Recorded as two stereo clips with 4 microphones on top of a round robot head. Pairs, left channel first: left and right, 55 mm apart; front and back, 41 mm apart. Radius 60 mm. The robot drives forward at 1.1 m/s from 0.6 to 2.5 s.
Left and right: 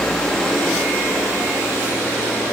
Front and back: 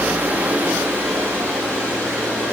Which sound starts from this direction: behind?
Running water, at 0.0 s.